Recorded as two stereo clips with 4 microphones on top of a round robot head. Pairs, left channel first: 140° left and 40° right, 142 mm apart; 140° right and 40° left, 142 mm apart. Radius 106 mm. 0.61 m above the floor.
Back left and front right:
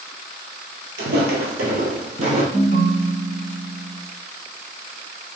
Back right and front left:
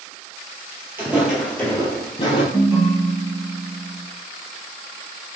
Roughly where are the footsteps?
Ahead right.